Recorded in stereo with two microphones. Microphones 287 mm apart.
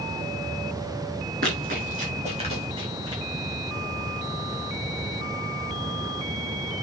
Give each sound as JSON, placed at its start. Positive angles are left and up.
{"t": 1.4, "sound": "running footsteps", "side_deg": -30, "distance_m": 5.5}